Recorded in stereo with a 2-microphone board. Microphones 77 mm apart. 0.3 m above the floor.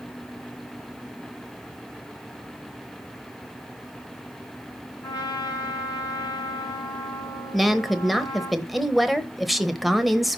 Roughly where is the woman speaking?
Centre.